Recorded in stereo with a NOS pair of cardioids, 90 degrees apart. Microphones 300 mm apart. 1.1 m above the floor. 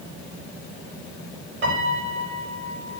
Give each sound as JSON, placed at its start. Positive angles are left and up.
{"t": 1.6, "sound": "a piano", "azimuth_deg": -35, "distance_m": 5.5}